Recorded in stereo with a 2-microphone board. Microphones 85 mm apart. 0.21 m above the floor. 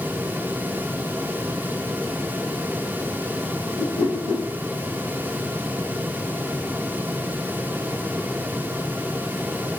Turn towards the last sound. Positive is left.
turn(degrees=50)  # may be behind; listen again after turning